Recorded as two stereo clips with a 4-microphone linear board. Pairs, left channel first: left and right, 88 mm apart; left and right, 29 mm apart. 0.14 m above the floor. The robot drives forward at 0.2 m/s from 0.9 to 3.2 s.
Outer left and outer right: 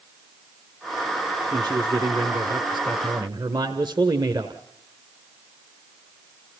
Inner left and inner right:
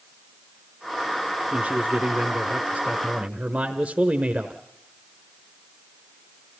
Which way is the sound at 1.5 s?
50° right (ahead or behind).